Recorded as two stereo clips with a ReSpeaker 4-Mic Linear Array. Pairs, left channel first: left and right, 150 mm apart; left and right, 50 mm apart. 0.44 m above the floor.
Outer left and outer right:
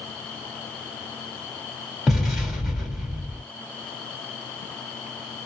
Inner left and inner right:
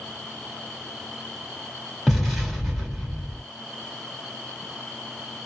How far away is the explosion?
About 1.6 m.